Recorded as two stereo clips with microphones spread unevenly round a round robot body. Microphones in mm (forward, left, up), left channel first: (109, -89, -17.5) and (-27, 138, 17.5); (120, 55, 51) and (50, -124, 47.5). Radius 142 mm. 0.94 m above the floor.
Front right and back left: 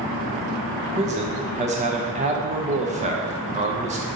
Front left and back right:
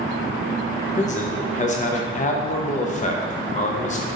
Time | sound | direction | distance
0.9 | a man speaking | 65° left | 0.8 m